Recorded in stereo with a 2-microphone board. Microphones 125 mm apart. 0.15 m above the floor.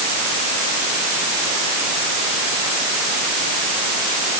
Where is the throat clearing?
No throat clearing in this recording.